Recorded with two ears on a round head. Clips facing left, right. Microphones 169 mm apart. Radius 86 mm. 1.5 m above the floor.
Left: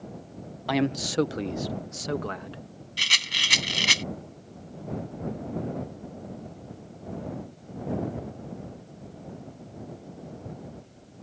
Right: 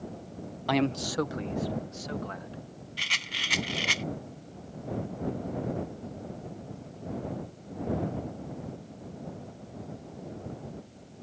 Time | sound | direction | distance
0.7 | a man speaking | centre (ahead or behind) | ?
3.0 | a rattle | 50° left (ahead or behind) | ?